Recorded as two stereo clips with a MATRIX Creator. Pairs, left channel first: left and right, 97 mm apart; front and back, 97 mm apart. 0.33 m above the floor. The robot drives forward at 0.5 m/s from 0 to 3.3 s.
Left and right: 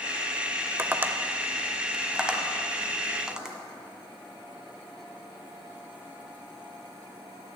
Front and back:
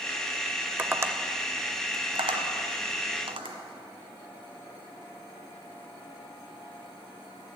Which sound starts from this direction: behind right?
Tapping, at 0.8 s.